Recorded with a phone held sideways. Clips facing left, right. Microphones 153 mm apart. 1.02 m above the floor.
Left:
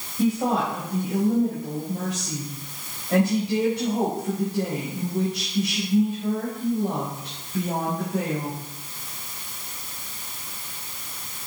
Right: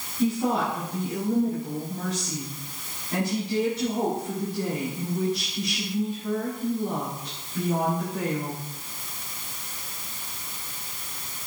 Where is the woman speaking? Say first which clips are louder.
Left 2 dB; 80° left, 4.5 m.